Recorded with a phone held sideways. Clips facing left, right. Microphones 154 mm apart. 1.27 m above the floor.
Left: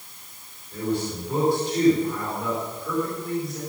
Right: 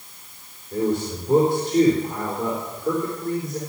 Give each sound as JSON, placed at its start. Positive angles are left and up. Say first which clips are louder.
{"t": 0.7, "sound": "a man speaking", "louder": "right 4 dB", "side_deg": -45, "distance_m": 3.5}